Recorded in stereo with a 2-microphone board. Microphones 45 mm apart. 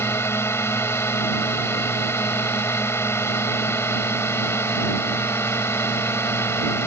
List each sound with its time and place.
0.0 s a drone: 75° left (ahead or behind)